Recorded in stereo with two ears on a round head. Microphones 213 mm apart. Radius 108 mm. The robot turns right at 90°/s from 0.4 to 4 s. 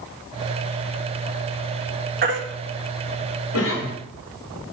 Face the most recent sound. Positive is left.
turn(degrees=145)